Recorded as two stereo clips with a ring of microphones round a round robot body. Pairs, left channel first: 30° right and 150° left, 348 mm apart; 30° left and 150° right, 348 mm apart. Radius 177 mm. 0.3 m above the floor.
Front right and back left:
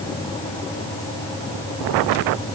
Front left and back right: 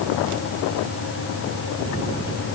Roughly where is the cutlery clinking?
No cutlery clinking in this recording.